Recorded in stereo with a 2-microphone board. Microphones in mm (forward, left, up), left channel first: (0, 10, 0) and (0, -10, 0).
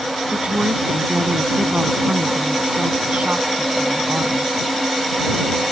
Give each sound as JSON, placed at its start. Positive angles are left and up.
{"t": 0.3, "sound": "a woman speaking", "side_deg": -85}